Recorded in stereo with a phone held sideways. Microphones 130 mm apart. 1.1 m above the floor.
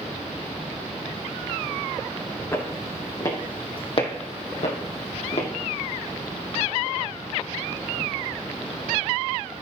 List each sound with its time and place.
2.5 s footsteps: 20° left (ahead or behind), 3.5 m; by 5.5 s 50° left (ahead or behind), 2.5 m